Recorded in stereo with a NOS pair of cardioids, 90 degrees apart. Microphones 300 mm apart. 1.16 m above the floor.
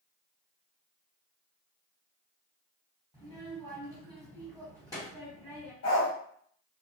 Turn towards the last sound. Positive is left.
turn(degrees=65)